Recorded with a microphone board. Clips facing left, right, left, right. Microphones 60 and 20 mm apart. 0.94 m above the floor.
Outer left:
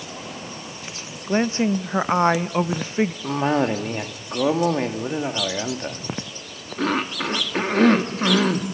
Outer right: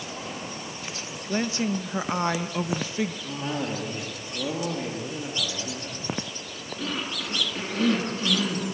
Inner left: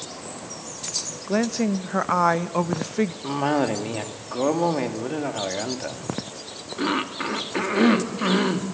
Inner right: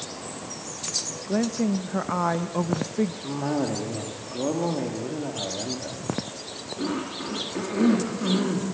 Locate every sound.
1.3 s a woman speaking: 35° left (ahead or behind), 0.8 m
3.2 s a cough: 65° left (ahead or behind), 2.5 m